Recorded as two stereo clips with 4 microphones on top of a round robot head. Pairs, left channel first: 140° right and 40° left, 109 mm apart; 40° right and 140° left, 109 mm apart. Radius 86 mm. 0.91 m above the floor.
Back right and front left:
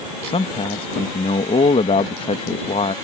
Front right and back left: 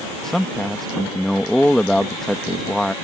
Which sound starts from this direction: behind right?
A man speaking, at 0.2 s.